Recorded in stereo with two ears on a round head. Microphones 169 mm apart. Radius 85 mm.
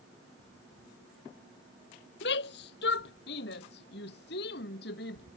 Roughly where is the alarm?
No alarm in this recording.